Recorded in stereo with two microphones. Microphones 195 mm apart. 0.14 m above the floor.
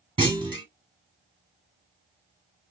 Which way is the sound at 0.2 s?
25° right (ahead or behind).